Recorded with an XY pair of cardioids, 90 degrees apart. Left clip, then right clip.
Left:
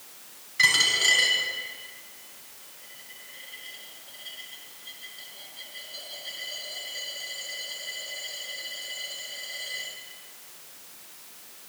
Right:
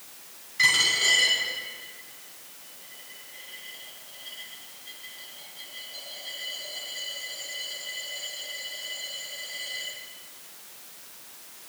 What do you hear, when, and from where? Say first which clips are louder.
0.6 s a dropped coin: left 1 dB; 35° left, 6.5 m